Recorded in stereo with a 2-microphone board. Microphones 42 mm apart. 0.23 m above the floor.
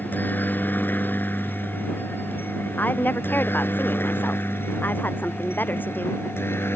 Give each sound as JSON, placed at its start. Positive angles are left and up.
{"t": 0.0, "sound": "a helicopter", "side_deg": 40}
{"t": 2.8, "sound": "a woman speaking", "side_deg": 45}